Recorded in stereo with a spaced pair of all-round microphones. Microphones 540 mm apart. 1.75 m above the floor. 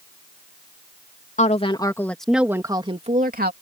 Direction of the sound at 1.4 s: 15° left (ahead or behind).